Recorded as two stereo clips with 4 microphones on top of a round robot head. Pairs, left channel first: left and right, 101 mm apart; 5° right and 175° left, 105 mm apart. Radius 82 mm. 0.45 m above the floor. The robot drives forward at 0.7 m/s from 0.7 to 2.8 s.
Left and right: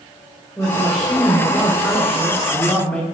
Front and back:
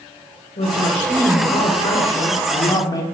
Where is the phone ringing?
I don't hear a phone ringing.